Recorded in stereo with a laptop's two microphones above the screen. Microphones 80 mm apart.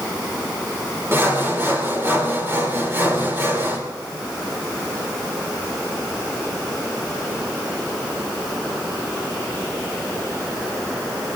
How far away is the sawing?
About 3 m.